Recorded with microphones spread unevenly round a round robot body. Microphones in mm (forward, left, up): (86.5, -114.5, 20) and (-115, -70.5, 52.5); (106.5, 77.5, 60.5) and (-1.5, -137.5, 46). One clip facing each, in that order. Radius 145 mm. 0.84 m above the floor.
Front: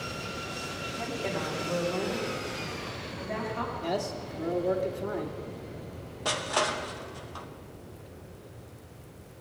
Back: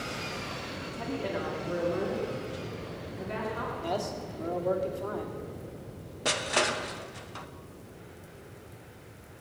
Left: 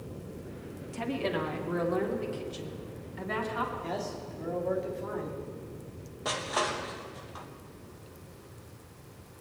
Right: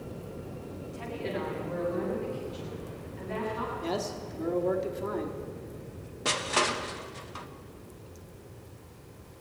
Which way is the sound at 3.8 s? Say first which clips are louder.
Front 1 dB, right 3 dB; 80° right.